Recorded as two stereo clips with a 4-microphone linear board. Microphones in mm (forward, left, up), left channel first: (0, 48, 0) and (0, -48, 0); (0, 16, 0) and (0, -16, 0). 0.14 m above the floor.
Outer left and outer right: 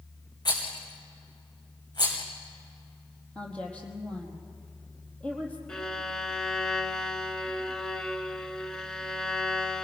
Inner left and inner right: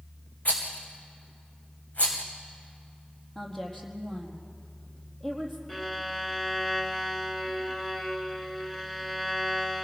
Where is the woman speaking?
10° left (ahead or behind), 4 m.